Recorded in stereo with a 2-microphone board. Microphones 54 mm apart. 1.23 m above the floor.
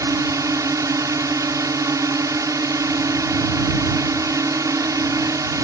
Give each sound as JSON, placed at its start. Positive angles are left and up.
{"t": 0.0, "sound": "a drone", "side_deg": -85}